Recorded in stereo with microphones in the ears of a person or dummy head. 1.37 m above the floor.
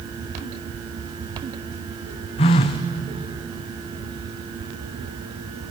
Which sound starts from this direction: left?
A phone buzzing, at 2.4 s.